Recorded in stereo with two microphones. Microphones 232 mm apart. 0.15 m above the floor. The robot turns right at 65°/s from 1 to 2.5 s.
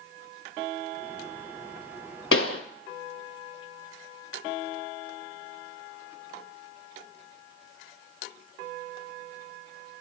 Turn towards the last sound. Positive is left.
turn(degrees=75)  # may be behind; listen again after turning